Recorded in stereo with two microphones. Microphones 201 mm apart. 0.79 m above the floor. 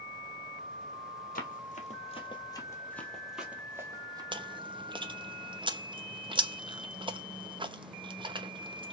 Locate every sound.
1.4 s running footsteps: 45° left (ahead or behind), 1.6 m; by 4.2 s 20° right (ahead or behind), 1.7 m
4.3 s chewing: 25° right (ahead or behind), 0.6 m